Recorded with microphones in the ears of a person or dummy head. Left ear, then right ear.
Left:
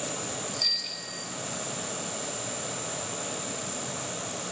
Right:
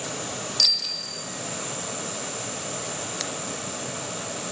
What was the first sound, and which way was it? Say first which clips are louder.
A bicycle bell: right 7 dB; 40° right (ahead or behind).